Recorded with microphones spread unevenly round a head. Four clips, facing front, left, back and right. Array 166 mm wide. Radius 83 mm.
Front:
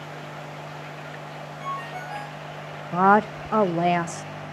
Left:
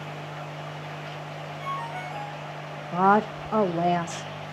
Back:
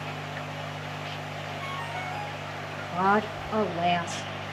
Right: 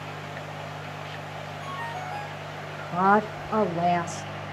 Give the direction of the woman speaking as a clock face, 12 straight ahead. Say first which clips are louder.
Left 1 dB, front 6 dB; 11 o'clock.